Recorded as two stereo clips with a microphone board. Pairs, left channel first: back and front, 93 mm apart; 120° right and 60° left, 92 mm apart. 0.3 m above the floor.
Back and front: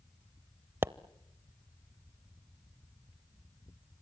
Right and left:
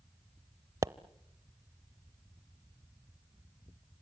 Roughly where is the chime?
I don't hear a chime.